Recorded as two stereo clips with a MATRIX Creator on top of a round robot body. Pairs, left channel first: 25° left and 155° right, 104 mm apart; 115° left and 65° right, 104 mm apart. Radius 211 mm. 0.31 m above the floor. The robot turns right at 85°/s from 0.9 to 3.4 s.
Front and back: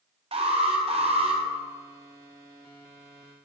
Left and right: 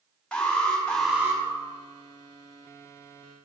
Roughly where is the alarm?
Behind.